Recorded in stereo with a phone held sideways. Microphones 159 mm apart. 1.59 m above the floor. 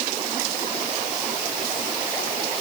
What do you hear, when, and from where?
Only background noise.